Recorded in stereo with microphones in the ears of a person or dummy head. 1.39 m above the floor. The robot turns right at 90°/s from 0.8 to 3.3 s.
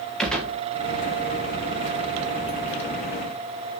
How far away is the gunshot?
About 2 m.